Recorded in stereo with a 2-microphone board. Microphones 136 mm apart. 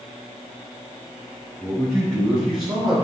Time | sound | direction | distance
1.6 | a man speaking | 5° right (ahead or behind) | 1.6 m